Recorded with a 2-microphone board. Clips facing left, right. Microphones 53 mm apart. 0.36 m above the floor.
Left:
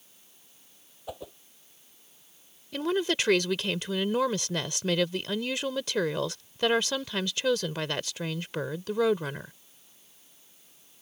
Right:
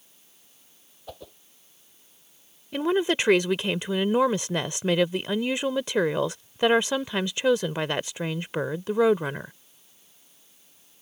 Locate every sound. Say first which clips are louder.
1.1 s a whoosh: left 3 dB; 10° left (ahead or behind)
2.7 s a woman speaking: right 4 dB; 20° right (ahead or behind)